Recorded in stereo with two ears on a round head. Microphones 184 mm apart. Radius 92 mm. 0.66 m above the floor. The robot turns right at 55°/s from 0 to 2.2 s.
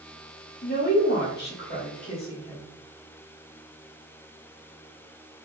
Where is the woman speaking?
55° left, 1.4 m; by 2.7 s 140° left, 1.4 m.